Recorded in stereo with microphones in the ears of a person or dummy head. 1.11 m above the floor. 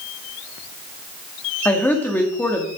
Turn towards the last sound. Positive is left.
turn(degrees=15)  # may be behind; listen again after turning